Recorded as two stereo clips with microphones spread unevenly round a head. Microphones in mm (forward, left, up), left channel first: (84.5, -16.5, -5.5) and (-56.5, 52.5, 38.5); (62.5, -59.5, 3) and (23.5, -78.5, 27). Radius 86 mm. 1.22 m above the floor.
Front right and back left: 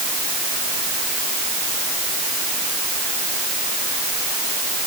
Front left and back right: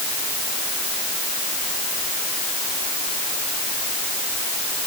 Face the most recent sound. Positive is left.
No sound to turn to.